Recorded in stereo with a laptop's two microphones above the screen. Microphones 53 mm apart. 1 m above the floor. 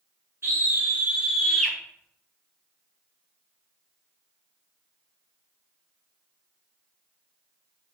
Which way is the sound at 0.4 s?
55° right (ahead or behind).